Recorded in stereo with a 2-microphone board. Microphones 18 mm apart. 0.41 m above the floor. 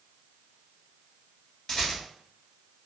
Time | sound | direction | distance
1.7 | a rattle | 40° left (ahead or behind) | 1.3 m